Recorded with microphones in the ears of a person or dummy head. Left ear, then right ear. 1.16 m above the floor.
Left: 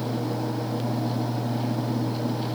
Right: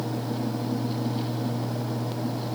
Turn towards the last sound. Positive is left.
No sound to turn to.